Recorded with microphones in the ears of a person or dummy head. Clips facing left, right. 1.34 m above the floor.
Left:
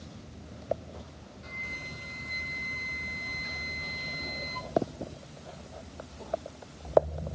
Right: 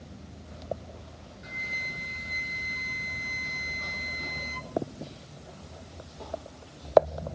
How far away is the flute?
About 1.3 m.